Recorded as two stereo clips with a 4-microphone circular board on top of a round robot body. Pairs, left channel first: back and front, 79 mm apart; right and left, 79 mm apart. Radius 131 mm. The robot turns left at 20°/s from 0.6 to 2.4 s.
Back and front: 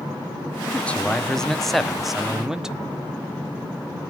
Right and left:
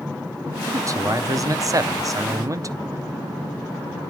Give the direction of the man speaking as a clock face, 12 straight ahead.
8 o'clock.